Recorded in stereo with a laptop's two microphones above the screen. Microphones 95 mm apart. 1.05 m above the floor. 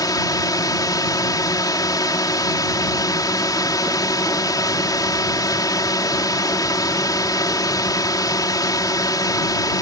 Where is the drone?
40° left (ahead or behind).